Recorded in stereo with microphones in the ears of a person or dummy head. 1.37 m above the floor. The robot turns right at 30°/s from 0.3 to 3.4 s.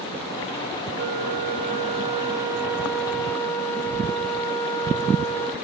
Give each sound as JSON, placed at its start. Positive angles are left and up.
{"t": 1.0, "sound": "a flute", "azimuth_deg": -60, "distance_m": 1.4}